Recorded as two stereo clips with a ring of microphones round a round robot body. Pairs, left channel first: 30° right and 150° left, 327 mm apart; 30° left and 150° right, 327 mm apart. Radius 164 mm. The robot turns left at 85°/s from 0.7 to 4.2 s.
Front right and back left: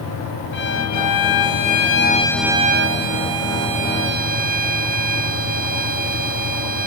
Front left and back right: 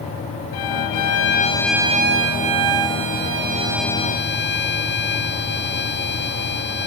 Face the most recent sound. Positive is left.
turn(degrees=85)